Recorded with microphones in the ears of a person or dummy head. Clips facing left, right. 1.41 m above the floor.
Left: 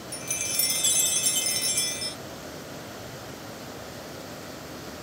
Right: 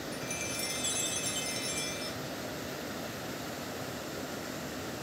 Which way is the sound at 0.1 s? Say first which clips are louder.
Right 1 dB; 60° left (ahead or behind).